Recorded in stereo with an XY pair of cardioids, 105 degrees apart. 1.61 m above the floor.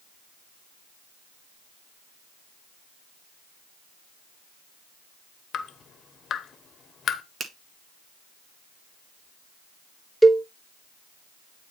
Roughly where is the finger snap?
Ahead right.